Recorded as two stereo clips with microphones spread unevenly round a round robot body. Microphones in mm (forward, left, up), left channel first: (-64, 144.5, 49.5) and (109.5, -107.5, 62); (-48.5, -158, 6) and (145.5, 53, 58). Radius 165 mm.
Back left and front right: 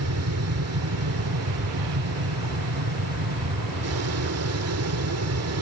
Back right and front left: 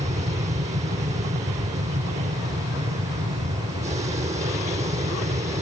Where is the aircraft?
25° right.